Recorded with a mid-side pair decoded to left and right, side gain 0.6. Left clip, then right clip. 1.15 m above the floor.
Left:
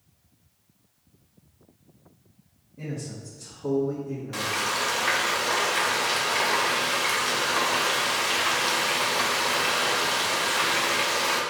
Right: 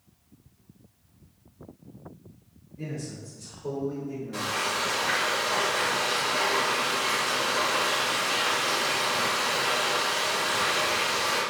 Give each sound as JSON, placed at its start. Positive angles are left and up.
{"t": 2.8, "sound": "a man speaking", "azimuth_deg": 35, "distance_m": 1.8}
{"t": 4.3, "sound": "frying", "azimuth_deg": 45, "distance_m": 1.1}